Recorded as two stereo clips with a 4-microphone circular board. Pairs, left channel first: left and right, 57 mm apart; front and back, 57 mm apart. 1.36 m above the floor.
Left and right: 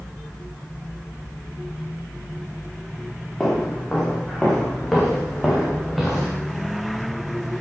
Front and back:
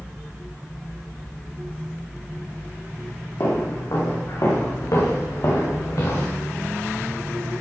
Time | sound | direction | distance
3.4 | footsteps | 5° left | 9.5 m